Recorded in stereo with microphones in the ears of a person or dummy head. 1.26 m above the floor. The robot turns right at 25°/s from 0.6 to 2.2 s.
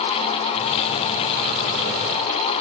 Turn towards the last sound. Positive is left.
No sound to turn to.